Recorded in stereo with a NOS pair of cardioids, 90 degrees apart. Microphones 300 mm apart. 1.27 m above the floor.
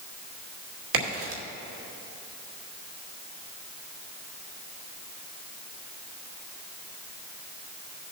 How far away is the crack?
About 2.5 m.